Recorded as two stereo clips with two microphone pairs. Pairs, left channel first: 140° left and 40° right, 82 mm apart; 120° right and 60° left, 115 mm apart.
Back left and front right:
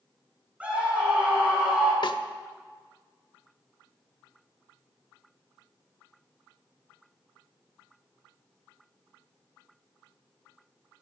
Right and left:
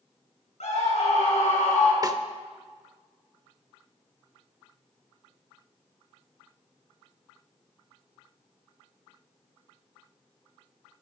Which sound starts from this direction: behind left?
A snare drum, at 2.0 s.